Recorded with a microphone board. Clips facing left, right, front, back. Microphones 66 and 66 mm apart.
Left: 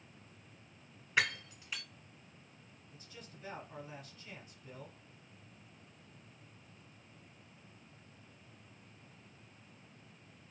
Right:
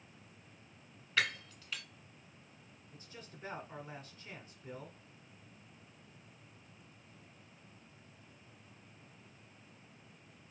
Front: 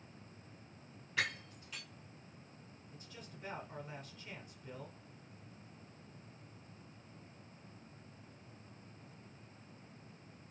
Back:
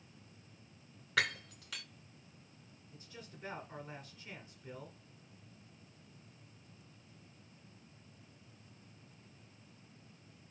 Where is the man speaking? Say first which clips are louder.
Right 1 dB, back 1 dB; 90° right, 1.1 m.